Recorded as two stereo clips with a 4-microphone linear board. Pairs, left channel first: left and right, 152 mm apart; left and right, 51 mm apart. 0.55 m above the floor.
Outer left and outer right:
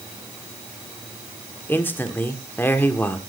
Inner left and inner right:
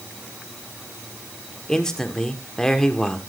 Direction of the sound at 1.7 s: 15° left (ahead or behind).